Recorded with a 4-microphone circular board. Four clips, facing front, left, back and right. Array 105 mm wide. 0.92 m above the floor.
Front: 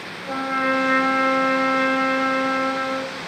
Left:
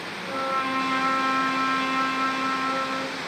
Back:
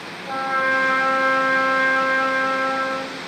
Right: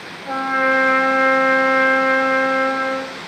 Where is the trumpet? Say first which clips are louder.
Right 8 dB, back 1 dB; 90° right, 1.0 m.